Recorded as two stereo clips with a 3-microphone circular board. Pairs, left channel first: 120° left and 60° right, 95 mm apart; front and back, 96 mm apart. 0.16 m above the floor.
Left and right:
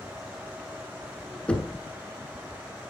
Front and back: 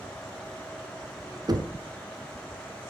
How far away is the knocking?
About 1.1 m.